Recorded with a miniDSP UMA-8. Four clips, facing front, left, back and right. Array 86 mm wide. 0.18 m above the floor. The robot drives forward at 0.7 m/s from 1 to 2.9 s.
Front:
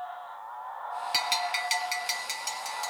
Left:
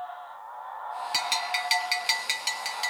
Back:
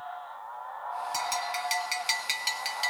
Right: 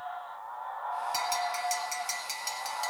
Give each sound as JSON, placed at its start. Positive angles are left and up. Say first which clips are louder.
{"t": 1.1, "sound": "a bell", "louder": "even, front 2 dB", "azimuth_deg": 40, "distance_m": 0.8}